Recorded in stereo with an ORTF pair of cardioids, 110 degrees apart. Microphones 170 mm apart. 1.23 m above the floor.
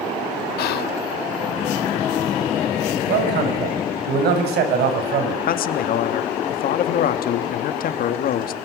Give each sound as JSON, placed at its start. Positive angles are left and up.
{"t": 0.6, "sound": "whispering", "azimuth_deg": 70, "distance_m": 0.5}
{"t": 3.1, "sound": "a man speaking", "azimuth_deg": -70, "distance_m": 6.0}
{"t": 5.5, "sound": "a man speaking", "azimuth_deg": 60, "distance_m": 1.8}